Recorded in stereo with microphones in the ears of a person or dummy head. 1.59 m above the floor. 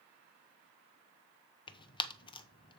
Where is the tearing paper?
30° left (ahead or behind), 0.8 m.